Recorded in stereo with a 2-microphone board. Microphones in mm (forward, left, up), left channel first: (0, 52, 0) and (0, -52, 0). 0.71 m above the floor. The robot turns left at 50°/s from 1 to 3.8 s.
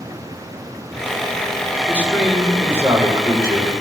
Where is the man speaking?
20° left, 2.5 m; by 3.7 s 70° right, 2.5 m.